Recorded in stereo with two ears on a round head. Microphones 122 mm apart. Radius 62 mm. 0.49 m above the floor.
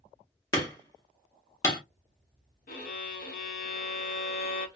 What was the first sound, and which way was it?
Hammering, 25° left (ahead or behind).